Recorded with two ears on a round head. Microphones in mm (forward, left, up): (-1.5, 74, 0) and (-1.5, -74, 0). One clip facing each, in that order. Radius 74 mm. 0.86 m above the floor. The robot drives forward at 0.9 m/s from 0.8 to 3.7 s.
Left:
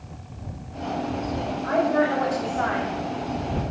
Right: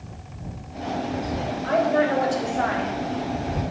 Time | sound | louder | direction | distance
1.6 | a woman speaking | right 1 dB | 40° right (ahead or behind) | 3.5 m